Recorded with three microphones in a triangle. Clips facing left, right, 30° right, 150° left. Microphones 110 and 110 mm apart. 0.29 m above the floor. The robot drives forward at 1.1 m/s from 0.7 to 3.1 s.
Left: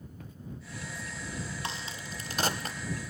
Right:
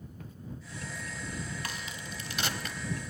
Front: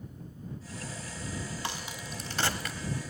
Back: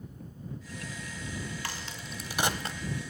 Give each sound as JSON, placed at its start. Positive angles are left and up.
{"t": 1.6, "sound": "a crack", "azimuth_deg": 35, "distance_m": 1.2}